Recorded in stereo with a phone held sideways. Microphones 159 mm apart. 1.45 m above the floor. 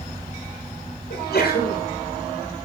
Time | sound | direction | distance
1.1 | a sneeze | 90° left | 6 m